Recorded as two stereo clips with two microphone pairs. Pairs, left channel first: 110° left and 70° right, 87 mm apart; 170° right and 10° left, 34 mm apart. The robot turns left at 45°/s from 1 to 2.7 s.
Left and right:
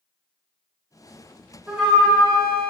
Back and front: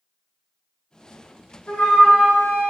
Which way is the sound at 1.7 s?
145° right.